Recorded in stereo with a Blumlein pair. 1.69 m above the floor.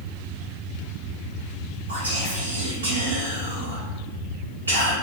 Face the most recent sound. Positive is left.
turn(degrees=-65)